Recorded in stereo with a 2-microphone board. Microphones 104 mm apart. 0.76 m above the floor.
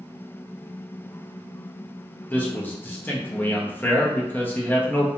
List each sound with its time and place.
2.3 s a man speaking: 20° left (ahead or behind), 0.6 m